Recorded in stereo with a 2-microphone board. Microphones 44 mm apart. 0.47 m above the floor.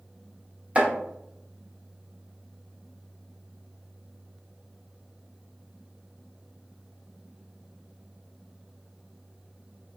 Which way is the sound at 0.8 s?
30° right (ahead or behind).